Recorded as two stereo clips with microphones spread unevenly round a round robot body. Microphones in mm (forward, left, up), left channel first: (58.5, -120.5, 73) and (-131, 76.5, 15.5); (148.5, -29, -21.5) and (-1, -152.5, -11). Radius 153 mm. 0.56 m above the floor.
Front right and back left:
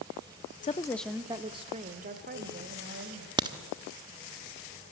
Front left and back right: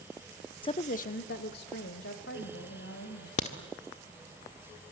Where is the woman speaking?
10° left, 0.7 m; by 3.3 s 85° left, 3 m.